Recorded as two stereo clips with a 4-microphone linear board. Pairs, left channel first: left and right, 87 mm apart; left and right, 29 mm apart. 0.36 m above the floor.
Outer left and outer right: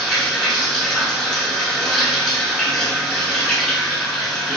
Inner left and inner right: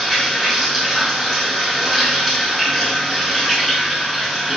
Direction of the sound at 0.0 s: 5° left (ahead or behind).